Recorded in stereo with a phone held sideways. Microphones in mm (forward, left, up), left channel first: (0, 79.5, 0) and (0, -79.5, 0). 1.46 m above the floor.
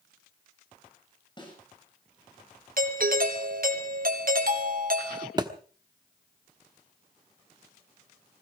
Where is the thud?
25° right (ahead or behind), 1.1 m.